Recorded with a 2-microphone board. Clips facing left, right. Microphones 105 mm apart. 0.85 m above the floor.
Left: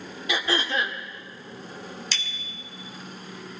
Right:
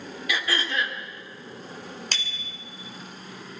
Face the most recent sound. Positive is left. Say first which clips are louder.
# right 1 dB
turn(degrees=-55)  # may be behind; listen again after turning